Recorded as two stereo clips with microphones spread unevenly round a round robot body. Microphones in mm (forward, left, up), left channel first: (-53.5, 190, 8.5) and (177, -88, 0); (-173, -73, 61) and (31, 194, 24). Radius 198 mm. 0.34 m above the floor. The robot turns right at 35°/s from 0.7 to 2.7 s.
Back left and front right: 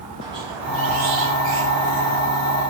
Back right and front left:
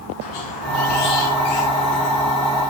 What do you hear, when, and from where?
0.2 s a squeak: 130° right, 3.5 m; by 2.2 s 75° right, 3.5 m